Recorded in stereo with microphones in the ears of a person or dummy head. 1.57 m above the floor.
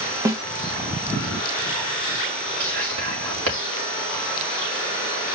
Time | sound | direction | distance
0.2 | a snare drum | 15° right (ahead or behind) | 1.2 m
2.6 | whispering | 80° right | 4 m